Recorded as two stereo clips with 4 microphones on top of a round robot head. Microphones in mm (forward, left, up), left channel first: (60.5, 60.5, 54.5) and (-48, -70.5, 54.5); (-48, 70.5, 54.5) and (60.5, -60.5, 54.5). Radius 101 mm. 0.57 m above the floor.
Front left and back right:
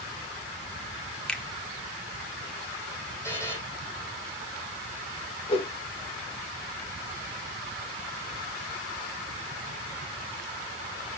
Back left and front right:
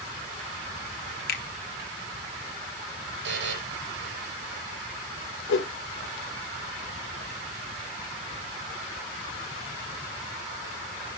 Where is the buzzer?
25° right, 4 m.